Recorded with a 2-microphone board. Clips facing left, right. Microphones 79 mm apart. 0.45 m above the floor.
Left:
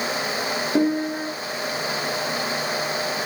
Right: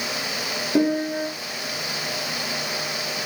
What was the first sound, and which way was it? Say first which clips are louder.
A piano: right 1 dB; centre (ahead or behind).